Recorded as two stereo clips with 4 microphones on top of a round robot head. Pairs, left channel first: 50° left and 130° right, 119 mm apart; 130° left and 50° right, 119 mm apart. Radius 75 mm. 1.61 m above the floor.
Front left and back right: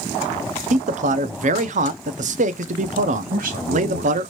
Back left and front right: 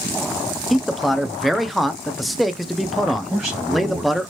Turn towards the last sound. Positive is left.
turn(degrees=-130)